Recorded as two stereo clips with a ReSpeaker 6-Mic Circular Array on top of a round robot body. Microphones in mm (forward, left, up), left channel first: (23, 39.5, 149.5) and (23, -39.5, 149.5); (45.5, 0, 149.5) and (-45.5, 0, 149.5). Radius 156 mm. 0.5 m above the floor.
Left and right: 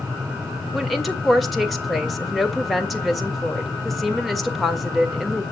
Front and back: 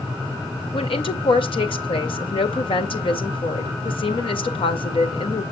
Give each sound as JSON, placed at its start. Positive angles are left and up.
{"t": 0.7, "sound": "a woman speaking", "azimuth_deg": 0, "distance_m": 2.0}